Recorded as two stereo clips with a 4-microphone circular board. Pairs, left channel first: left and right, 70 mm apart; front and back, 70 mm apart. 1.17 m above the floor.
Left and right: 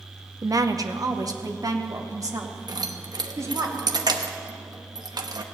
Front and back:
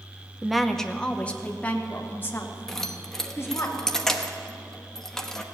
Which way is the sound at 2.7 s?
85° right.